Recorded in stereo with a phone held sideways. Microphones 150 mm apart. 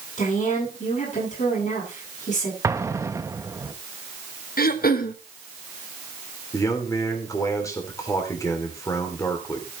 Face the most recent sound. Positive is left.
turn(degrees=20)  # may be behind; listen again after turning